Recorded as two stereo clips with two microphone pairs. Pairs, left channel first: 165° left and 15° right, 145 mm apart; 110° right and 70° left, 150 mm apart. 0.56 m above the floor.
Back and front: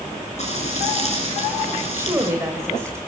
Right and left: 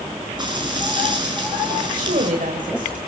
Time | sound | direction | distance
0.4 | frying | 130° left | 7.5 m
1.9 | a woman speaking | 55° left | 2.5 m